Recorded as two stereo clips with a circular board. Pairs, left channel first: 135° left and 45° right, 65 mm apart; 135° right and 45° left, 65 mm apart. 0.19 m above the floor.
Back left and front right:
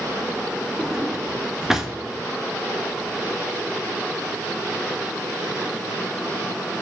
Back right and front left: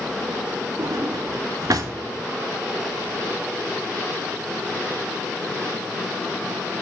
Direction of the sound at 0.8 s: 40° left.